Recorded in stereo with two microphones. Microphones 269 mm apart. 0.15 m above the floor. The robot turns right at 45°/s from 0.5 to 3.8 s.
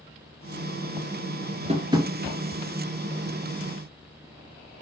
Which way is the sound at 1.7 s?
25° right (ahead or behind).